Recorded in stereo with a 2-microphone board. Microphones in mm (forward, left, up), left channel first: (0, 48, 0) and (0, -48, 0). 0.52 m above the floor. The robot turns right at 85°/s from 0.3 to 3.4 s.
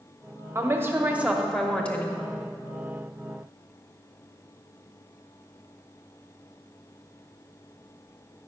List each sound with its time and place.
0.6 s a woman speaking: 25° right (ahead or behind), 0.8 m; by 2.2 s 25° left (ahead or behind), 0.8 m